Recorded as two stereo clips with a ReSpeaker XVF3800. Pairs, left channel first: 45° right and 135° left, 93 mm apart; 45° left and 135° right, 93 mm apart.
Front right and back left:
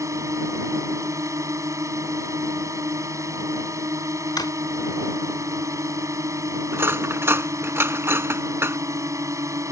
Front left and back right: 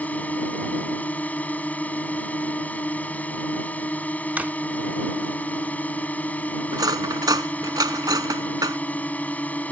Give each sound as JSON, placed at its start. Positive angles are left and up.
{"t": 0.0, "sound": "a drone", "azimuth_deg": 110}
{"t": 4.4, "sound": "a drawer", "azimuth_deg": -65}
{"t": 6.7, "sound": "cutlery clinking", "azimuth_deg": -165}